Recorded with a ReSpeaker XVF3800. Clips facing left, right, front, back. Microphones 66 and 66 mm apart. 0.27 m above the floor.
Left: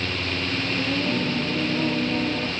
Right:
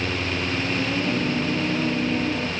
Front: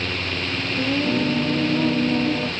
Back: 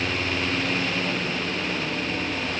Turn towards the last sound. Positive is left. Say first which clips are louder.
# left 1 dB, front 5 dB
turn(degrees=5)